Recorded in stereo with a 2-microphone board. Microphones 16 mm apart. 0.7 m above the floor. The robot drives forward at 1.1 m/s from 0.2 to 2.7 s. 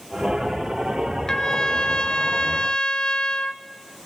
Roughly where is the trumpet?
Left.